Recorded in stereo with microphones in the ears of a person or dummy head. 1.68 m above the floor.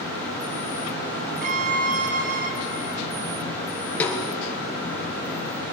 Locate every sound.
1.4 s a violin: 50° right (ahead or behind), 0.9 m
4.0 s a snare drum: 10° left (ahead or behind), 1.5 m